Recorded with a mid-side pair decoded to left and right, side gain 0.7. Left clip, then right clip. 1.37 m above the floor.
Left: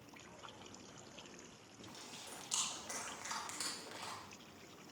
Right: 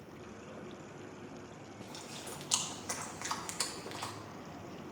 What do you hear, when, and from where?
1.8 s chewing: 40° right, 1.7 m